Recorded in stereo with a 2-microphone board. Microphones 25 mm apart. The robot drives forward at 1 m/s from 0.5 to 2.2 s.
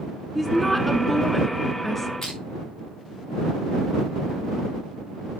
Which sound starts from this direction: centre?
A woman speaking, at 0.3 s.